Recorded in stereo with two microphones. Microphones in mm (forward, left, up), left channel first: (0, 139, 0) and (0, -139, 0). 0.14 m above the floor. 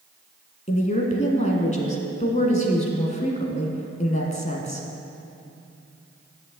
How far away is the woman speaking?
About 1.6 m.